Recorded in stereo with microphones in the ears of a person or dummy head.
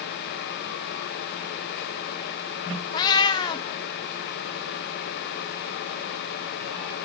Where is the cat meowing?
25° left (ahead or behind), 0.6 m.